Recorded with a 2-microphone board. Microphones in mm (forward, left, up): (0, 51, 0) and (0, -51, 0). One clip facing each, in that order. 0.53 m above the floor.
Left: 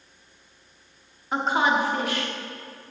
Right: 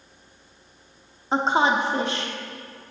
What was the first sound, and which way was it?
A woman speaking, 30° right (ahead or behind).